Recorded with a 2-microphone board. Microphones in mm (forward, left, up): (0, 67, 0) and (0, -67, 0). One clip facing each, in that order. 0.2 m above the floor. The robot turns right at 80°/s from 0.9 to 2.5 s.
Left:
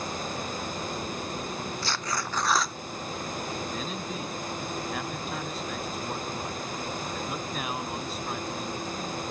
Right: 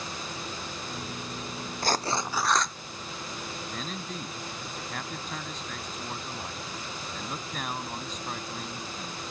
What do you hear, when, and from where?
1.8 s tearing paper: 50° right; by 2.8 s 5° left
3.7 s a man speaking: 5° left (ahead or behind)